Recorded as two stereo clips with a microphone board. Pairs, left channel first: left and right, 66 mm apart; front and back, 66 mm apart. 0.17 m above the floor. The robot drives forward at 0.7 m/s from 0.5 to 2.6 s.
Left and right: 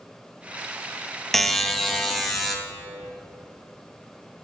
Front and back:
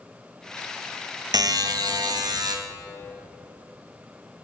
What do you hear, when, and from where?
1.3 s a buzzer: 175° left, 0.6 m; by 2.5 s straight behind, 1.5 m